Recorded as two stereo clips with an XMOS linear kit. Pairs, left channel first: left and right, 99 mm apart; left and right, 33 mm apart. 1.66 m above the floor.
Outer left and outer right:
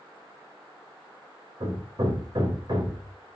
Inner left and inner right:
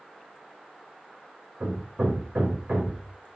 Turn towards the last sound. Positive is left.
turn(degrees=-50)  # may be behind; listen again after turning